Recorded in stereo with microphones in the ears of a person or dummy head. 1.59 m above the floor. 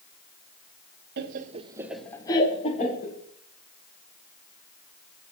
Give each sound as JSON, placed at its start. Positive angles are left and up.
{"t": 1.2, "sound": "laughter", "side_deg": -60, "distance_m": 1.0}